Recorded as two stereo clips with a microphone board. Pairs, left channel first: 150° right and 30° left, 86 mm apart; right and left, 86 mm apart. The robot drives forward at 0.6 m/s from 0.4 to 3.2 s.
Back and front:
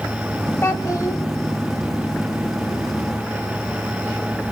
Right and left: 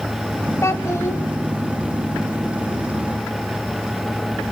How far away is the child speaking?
About 1.0 m.